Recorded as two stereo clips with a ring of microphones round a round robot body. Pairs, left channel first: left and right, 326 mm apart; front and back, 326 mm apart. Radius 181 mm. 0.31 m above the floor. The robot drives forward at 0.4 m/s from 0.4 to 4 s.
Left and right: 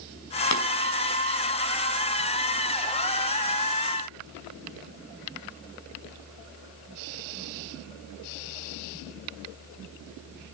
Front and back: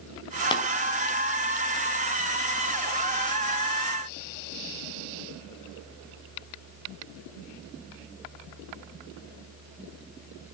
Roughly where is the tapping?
Left.